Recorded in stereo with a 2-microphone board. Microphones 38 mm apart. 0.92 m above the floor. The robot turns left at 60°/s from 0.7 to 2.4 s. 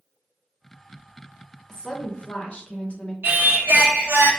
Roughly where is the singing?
Right.